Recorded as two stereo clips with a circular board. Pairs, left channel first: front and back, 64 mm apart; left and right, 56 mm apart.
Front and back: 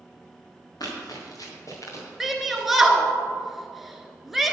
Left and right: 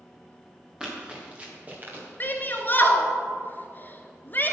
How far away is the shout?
About 1.3 m.